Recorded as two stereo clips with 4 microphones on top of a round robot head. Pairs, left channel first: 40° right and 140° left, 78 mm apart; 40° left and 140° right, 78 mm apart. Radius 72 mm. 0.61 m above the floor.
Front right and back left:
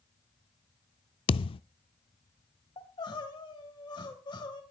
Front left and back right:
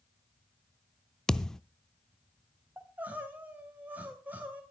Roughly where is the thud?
Ahead right.